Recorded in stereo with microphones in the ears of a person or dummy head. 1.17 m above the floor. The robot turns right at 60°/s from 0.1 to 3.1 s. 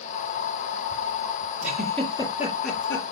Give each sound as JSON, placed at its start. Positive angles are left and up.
{"t": 1.6, "sound": "a giggle", "side_deg": -10, "distance_m": 7.5}